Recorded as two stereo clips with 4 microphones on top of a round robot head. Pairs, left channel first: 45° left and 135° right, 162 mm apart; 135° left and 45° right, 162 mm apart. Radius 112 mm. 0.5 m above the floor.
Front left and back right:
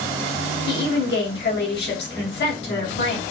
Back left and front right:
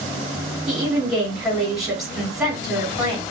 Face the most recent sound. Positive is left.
turn(degrees=45)